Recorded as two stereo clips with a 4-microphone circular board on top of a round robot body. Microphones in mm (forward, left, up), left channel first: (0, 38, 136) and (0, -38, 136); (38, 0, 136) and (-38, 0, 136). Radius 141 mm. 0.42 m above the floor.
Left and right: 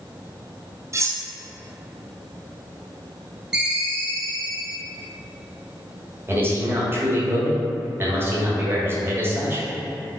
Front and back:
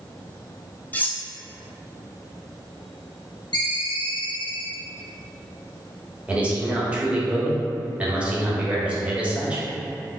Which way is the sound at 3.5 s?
10° right.